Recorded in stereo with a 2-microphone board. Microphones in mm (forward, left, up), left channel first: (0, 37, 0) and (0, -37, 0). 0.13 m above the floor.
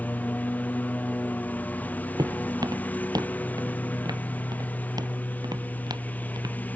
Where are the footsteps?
65° right (ahead or behind).